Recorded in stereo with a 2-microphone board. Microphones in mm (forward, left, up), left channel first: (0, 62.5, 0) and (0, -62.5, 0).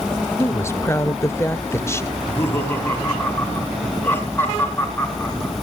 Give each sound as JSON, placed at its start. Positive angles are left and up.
{"t": 0.4, "sound": "a woman speaking", "side_deg": 20, "distance_m": 0.8}
{"t": 2.1, "sound": "laughter", "side_deg": 20, "distance_m": 4.5}